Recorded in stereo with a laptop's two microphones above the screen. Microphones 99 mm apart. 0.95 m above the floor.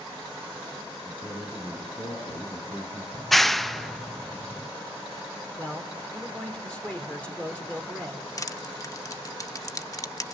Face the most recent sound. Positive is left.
turn(degrees=30)  # may be behind; listen again after turning